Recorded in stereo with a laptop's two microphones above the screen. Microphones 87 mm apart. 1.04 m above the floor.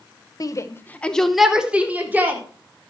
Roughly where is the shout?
Left.